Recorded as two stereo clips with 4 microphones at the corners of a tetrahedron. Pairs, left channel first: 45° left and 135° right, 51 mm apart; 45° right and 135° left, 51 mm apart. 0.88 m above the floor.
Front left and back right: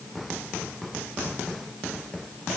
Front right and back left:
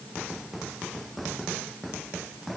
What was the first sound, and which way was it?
Only background noise.